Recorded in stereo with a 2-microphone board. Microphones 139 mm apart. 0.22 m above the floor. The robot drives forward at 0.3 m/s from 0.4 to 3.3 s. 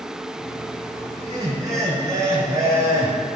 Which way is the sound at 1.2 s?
30° right (ahead or behind).